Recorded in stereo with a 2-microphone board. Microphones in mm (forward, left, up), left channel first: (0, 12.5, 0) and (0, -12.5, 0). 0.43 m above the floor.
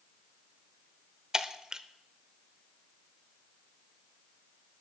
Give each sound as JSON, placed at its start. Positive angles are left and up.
{"t": 1.3, "sound": "breaking glass", "side_deg": -25, "distance_m": 0.7}